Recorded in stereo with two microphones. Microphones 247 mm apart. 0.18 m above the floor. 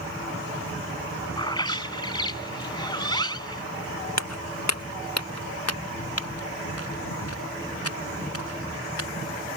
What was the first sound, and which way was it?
A bird, 15° left (ahead or behind).